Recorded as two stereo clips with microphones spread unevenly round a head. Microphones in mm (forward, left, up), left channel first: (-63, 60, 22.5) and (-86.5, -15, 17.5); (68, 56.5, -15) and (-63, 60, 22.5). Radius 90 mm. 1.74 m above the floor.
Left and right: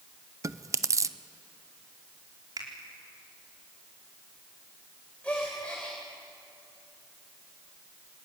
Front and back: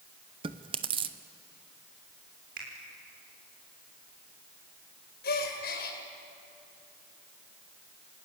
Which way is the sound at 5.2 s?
5° right.